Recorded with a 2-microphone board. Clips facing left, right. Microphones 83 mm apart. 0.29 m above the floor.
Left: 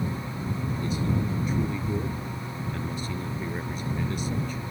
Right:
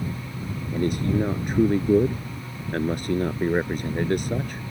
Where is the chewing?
No chewing in this recording.